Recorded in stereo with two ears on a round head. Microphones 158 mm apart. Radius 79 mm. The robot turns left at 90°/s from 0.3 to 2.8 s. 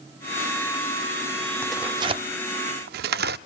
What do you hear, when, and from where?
1.6 s tearing paper: 5° left (ahead or behind), 0.5 m; by 3.4 s 60° right (ahead or behind), 0.5 m